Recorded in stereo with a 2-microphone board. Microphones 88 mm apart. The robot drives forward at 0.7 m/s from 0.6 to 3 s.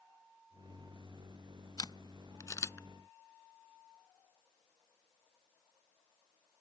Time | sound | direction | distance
1.8 | a camera shutter | 55° left (ahead or behind) | ?